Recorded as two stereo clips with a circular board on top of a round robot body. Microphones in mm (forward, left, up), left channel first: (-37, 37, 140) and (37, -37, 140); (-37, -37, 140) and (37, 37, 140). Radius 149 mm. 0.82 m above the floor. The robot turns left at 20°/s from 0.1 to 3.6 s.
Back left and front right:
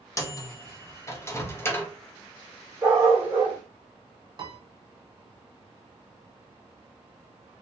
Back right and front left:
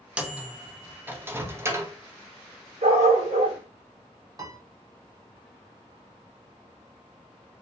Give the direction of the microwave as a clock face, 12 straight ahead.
8 o'clock.